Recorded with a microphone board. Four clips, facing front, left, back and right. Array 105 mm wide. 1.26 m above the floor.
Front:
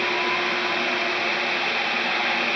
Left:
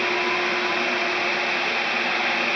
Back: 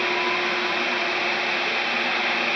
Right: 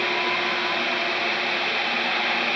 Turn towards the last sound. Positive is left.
No sound to turn to.